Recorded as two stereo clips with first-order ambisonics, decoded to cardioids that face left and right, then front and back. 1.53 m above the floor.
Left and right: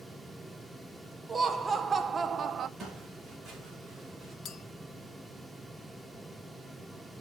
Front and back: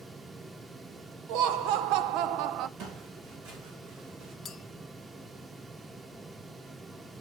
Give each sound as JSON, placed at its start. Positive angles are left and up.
{"t": 1.3, "sound": "laughter", "azimuth_deg": -170, "distance_m": 1.4}
{"t": 2.8, "sound": "footsteps", "azimuth_deg": -165, "distance_m": 7.5}
{"t": 4.5, "sound": "a clink", "azimuth_deg": 60, "distance_m": 0.8}